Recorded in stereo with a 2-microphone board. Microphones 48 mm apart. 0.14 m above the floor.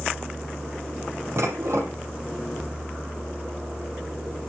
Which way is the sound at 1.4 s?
70° right (ahead or behind).